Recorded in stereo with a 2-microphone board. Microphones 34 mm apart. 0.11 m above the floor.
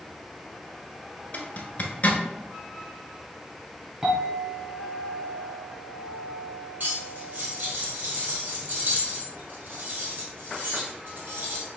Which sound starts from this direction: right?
Cutlery clinking, at 6.8 s.